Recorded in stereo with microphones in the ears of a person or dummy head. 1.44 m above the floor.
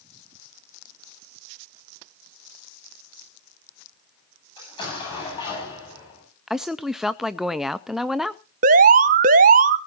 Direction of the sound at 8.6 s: 45° right (ahead or behind).